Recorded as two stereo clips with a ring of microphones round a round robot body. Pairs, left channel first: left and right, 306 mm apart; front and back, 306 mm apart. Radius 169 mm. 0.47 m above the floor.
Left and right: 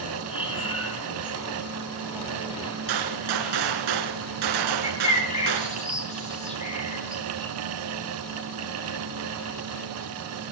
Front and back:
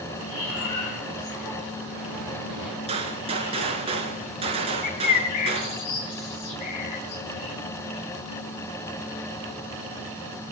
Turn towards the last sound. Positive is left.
turn(degrees=20)